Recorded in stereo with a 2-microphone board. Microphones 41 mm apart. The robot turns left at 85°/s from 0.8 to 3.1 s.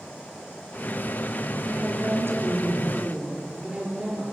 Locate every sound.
1.7 s a woman speaking: 20° right, 4.5 m; by 4.2 s 145° right, 4.5 m